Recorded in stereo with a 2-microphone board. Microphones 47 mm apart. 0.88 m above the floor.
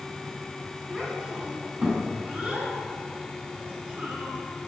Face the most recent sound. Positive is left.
turn(degrees=-35)  # may be behind; listen again after turning